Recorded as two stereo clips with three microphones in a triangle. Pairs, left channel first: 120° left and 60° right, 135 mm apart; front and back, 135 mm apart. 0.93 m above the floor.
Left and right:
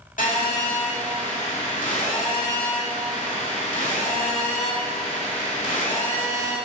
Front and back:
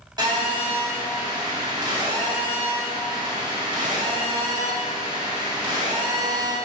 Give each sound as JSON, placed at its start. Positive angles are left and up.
{"t": 0.2, "sound": "a phone buzzing", "azimuth_deg": 125, "distance_m": 2.0}